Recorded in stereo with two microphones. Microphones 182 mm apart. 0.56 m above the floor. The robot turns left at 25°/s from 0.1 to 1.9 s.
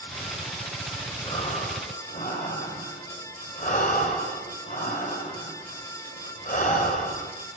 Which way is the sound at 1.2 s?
30° left (ahead or behind).